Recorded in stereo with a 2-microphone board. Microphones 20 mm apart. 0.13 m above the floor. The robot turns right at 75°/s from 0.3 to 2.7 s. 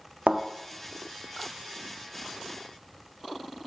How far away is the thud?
About 1.0 m.